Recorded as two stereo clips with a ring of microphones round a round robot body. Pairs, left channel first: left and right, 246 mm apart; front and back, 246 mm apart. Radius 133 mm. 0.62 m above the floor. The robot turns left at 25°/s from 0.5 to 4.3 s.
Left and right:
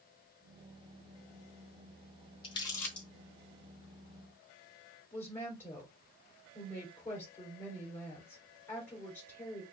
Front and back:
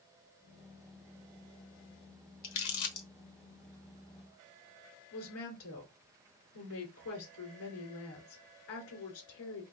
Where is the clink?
No clink in this recording.